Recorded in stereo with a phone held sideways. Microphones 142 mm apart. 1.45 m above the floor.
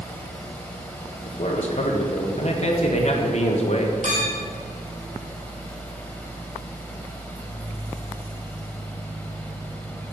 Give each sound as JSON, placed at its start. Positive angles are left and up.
{"t": 0.0, "sound": "a fan", "side_deg": 10, "distance_m": 1.7}
{"t": 1.3, "sound": "a man speaking", "side_deg": 50, "distance_m": 1.3}
{"t": 4.0, "sound": "a clink", "side_deg": -65, "distance_m": 2.5}